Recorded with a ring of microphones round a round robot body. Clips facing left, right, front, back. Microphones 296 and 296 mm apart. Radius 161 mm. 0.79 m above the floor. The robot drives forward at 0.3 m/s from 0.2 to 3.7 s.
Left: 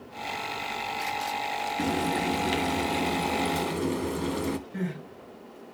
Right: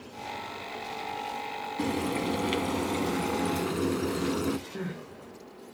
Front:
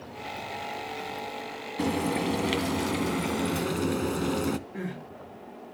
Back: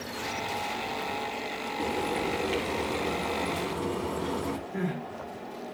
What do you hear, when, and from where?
1.8 s frying: straight ahead, 1.4 m; by 4.6 s 5° right, 0.9 m
4.7 s crying: 130° left, 5 m